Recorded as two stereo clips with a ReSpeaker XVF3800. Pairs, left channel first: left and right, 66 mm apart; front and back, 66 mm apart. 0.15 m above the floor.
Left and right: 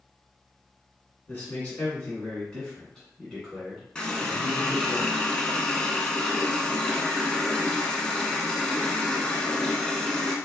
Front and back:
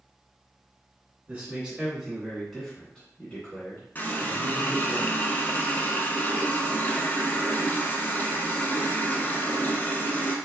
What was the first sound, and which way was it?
A man speaking, 125° left.